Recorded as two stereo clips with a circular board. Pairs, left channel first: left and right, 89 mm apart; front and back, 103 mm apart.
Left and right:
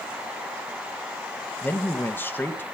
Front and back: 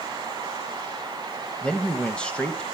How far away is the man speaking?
About 1.0 m.